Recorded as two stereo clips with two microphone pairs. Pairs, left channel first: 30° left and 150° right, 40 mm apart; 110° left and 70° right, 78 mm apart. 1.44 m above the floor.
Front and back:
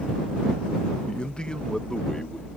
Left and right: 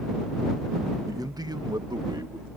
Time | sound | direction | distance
1.1 | a man speaking | 35° right | ?